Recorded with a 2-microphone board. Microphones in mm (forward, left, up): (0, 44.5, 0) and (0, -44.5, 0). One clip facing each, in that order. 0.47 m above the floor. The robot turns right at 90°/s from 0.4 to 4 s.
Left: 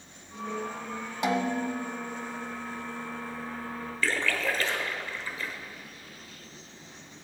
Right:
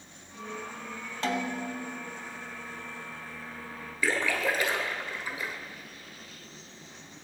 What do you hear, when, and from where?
1.2 s a snare drum: 15° left, 0.8 m; by 1.9 s 75° left, 0.8 m
4.0 s a splash: 15° right (ahead or behind), 1.3 m